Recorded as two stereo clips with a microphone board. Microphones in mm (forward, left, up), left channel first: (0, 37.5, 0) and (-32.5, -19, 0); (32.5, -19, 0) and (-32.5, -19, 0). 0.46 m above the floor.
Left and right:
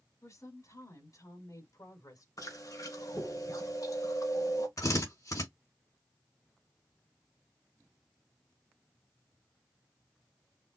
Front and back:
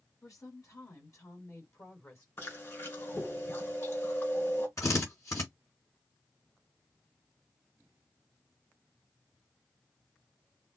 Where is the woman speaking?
25° left, 3.5 m; by 2.3 s 40° left, 3.5 m.